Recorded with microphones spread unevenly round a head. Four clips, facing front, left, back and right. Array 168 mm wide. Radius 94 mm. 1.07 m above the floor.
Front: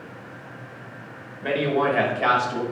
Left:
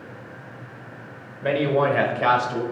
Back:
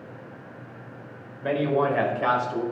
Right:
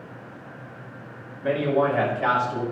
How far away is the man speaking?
About 4 m.